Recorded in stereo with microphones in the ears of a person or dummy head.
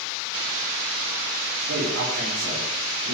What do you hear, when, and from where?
1.7 s a man speaking: 85° right, 4 m; by 3.1 s 75° right (ahead or behind), 6 m